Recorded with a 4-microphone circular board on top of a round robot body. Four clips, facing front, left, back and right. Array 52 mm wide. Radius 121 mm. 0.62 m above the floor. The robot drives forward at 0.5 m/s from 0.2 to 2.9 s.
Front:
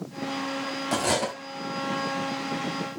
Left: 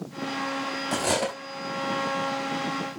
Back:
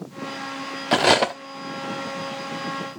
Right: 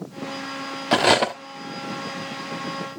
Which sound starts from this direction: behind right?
Cutlery clinking, at 0.9 s.